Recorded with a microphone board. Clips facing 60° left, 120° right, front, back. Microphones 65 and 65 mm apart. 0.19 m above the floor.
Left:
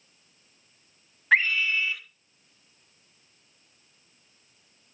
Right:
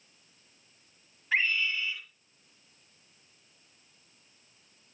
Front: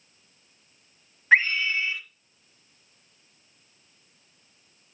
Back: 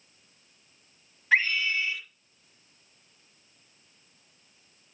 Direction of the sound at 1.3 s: 50° left.